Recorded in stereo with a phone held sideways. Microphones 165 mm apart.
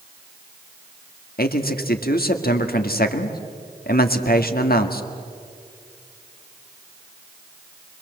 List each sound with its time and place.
1.4 s a man speaking: 65° left (ahead or behind), 1.9 m